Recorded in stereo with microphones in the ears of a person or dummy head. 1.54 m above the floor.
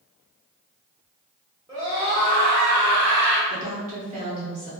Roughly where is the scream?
Centre.